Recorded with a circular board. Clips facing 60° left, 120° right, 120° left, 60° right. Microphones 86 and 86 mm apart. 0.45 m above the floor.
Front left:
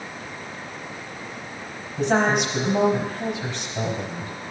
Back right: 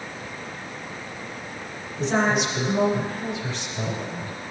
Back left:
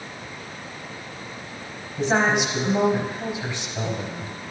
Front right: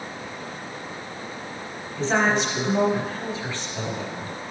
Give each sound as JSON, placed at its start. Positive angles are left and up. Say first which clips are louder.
{"t": 2.0, "sound": "a woman speaking", "louder": "front left 2 dB, back left 1 dB", "azimuth_deg": 50, "distance_m": 3.0}